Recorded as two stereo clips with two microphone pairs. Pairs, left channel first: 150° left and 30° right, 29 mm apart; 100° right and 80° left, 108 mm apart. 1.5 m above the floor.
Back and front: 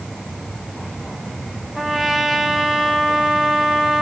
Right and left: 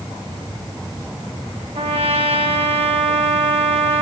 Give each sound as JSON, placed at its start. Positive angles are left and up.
{"t": 1.8, "sound": "a trumpet", "azimuth_deg": 60, "distance_m": 2.0}